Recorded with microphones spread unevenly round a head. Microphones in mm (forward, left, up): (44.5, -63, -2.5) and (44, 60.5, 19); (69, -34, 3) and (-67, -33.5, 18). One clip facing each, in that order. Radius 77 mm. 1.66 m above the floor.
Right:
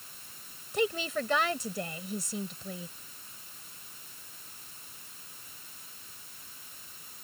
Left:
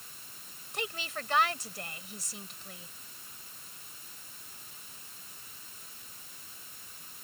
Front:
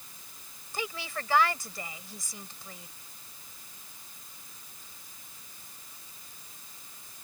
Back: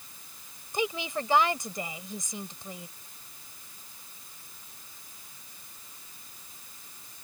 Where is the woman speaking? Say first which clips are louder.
Right 9 dB, back 6 dB; 110° right.